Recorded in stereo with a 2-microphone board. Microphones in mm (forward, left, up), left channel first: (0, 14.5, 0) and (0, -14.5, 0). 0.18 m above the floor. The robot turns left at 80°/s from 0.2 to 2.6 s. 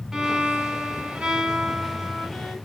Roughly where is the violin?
Ahead right.